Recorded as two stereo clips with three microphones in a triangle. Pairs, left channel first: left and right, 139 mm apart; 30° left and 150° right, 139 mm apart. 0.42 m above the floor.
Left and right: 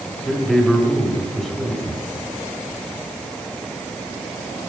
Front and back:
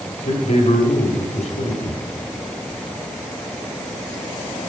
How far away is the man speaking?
About 1.7 m.